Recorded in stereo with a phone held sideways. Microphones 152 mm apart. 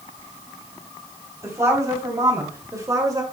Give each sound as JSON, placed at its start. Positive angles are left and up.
{"t": 1.4, "sound": "a woman speaking", "side_deg": -20, "distance_m": 4.5}